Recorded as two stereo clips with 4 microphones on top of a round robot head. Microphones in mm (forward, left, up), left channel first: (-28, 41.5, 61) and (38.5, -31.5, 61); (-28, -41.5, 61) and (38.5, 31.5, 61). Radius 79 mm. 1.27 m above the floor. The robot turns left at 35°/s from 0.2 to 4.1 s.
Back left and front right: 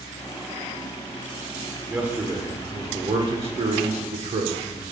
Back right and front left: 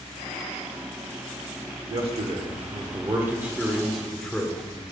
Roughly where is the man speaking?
Ahead left.